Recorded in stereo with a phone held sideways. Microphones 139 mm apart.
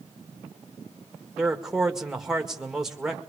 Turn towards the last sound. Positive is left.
turn(degrees=-5)  # may be behind; listen again after turning